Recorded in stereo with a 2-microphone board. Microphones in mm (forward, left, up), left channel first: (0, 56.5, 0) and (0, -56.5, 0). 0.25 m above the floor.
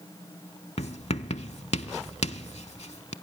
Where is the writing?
75° left (ahead or behind), 0.6 m.